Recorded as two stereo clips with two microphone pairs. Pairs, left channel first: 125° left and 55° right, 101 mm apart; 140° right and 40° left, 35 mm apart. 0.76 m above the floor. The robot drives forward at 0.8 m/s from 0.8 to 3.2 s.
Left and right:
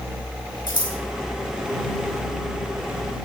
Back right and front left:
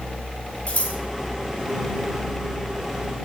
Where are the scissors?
165° left, 6 m.